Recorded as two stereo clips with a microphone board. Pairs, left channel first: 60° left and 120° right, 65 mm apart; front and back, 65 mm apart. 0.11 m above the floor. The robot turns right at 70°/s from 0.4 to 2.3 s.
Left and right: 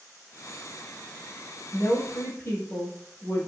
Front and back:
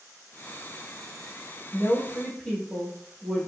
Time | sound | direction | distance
1.7 | a woman speaking | 25° left | 1.6 m